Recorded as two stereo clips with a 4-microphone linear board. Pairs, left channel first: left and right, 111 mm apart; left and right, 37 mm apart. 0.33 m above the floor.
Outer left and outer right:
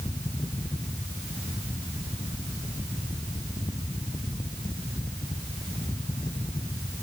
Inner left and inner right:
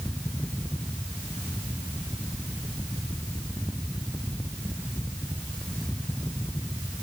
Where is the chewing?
No chewing in this recording.